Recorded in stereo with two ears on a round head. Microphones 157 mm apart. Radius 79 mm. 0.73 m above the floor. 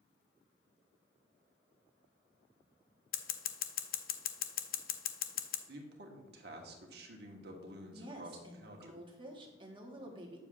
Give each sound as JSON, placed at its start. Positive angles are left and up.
{"t": 3.1, "sound": "scissors", "side_deg": 55, "distance_m": 0.6}
{"t": 5.7, "sound": "a man speaking", "side_deg": -60, "distance_m": 1.2}
{"t": 7.9, "sound": "a woman speaking", "side_deg": -25, "distance_m": 1.3}